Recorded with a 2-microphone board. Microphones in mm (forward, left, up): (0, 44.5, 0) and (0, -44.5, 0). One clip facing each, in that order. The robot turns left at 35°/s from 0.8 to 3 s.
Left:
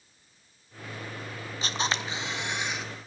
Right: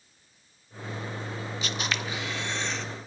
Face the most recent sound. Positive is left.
turn(degrees=5)